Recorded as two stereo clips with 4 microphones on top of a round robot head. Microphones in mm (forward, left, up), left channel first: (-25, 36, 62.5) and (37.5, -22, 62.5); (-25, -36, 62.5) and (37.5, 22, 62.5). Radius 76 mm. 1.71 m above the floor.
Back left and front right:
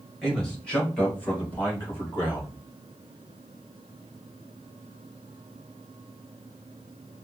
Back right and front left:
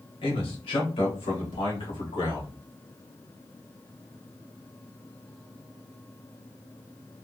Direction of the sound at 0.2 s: 135° right.